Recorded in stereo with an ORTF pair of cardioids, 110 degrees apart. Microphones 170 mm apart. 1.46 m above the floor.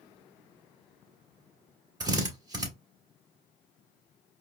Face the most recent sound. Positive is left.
turn(degrees=-25)